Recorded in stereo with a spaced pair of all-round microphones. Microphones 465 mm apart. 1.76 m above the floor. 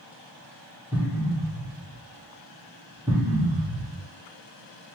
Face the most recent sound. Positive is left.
turn(degrees=-10)  # may be behind; listen again after turning